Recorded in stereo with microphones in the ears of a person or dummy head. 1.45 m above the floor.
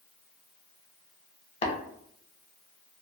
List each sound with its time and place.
1.6 s tapping: 35° left (ahead or behind), 0.7 m